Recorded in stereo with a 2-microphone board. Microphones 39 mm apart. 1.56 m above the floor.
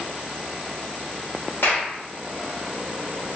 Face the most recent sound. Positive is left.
turn(degrees=65)  # may be behind; listen again after turning